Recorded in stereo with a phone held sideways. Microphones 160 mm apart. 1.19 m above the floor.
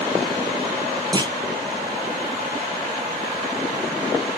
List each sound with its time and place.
1.1 s a clunk: 25° right (ahead or behind), 0.6 m